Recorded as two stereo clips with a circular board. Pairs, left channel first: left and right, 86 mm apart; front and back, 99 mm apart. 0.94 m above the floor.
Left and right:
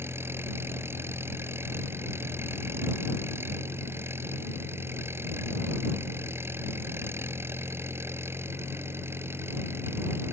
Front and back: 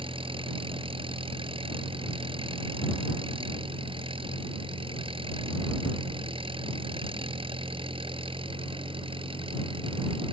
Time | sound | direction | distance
0.0 | an engine running | 150° right | ?